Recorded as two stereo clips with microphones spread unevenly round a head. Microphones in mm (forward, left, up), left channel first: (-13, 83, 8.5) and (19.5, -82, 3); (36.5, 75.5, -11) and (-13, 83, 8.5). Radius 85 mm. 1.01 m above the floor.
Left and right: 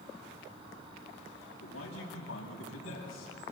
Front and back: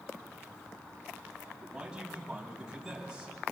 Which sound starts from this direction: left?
A man speaking, at 1.6 s.